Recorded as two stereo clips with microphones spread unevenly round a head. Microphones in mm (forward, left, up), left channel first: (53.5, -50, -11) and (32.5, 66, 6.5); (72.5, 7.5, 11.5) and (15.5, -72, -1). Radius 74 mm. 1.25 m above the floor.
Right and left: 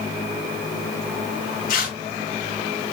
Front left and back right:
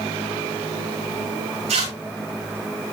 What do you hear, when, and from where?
1.7 s tearing paper: 120° right, 8 m